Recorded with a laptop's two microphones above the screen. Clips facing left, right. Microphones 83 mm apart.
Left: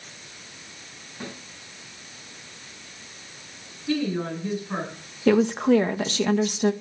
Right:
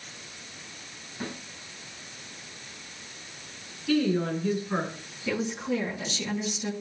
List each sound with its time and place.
1.2 s a snare drum: centre (ahead or behind), 7.5 m
3.9 s a woman speaking: 25° left (ahead or behind), 8 m
5.3 s a woman speaking: 70° left (ahead or behind), 0.9 m